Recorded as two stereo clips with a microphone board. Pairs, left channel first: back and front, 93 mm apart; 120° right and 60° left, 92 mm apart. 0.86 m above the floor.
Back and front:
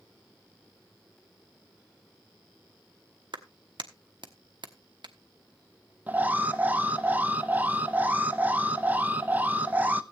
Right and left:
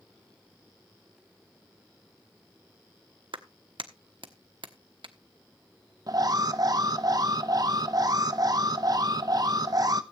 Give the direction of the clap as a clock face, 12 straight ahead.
11 o'clock.